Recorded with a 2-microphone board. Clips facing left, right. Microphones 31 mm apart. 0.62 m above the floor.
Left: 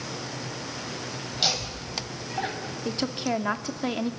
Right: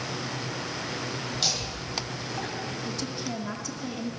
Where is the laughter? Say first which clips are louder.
Left 5 dB; 20° left (ahead or behind), 3.5 m.